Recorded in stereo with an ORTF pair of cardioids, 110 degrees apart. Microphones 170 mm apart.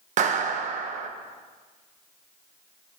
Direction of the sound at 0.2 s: 45° right.